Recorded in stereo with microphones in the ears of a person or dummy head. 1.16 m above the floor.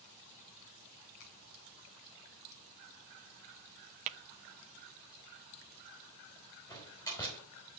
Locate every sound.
1.2 s a finger snap: 70° left (ahead or behind), 4 m
4.1 s tapping: 45° right (ahead or behind), 0.7 m
6.7 s a door slam: 20° left (ahead or behind), 4.5 m